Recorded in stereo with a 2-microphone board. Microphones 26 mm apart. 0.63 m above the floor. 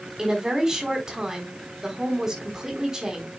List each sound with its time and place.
0.2 s a woman speaking: 20° right (ahead or behind), 4 m